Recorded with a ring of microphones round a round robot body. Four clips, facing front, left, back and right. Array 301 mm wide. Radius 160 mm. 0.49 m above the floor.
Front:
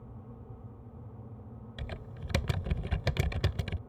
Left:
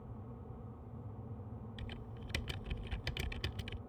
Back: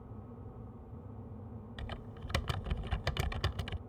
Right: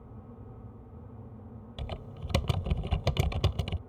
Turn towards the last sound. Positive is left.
turn(degrees=-60)